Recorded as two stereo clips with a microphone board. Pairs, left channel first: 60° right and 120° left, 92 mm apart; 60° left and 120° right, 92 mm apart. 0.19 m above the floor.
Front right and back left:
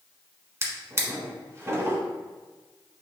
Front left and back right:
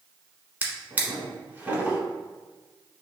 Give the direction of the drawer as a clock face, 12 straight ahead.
6 o'clock.